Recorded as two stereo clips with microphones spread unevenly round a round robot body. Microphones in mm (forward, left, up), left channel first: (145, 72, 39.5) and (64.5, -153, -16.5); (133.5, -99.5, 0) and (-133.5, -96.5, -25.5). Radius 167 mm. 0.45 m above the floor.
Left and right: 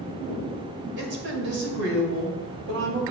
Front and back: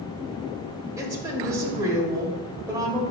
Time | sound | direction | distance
1.0 | a woman speaking | 105° right | 2 m